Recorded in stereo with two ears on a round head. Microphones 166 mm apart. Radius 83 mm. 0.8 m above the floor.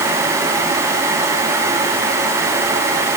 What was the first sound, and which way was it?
Only background noise.